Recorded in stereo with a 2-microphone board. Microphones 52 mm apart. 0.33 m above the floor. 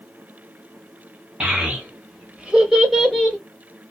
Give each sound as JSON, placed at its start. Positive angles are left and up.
{"t": 1.4, "sound": "a child speaking", "side_deg": -20, "distance_m": 1.9}